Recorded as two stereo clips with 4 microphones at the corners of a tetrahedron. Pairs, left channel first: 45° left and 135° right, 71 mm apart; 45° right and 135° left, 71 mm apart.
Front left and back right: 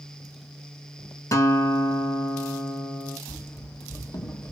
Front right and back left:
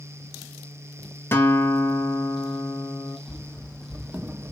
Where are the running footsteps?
10° left, 0.9 m; by 4.5 s 85° left, 0.7 m.